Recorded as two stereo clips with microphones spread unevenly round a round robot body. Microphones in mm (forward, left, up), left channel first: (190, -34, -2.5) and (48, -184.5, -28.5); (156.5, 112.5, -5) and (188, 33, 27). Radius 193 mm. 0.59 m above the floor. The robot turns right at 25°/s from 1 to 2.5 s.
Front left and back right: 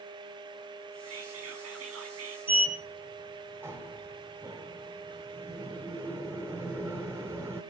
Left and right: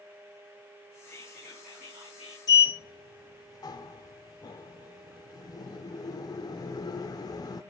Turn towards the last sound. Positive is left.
turn(degrees=145)